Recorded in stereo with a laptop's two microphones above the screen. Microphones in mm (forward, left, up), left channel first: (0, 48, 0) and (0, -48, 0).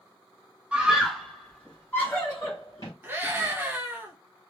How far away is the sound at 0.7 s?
About 1.2 m.